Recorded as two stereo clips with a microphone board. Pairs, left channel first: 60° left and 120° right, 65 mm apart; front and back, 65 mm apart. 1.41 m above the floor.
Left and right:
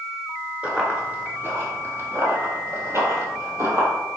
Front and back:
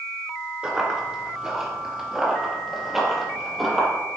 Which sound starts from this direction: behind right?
Running footsteps, at 0.6 s.